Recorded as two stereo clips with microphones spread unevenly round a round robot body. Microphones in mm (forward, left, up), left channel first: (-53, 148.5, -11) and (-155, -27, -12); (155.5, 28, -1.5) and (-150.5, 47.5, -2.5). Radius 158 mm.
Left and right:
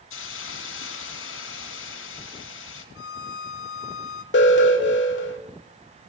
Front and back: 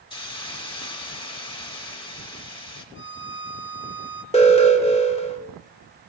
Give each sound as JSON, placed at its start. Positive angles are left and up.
{"t": 0.1, "sound": "a hiss", "azimuth_deg": 70, "distance_m": 2.0}
{"t": 3.0, "sound": "a violin", "azimuth_deg": 50, "distance_m": 1.2}
{"t": 4.3, "sound": "an alarm", "azimuth_deg": 65, "distance_m": 1.7}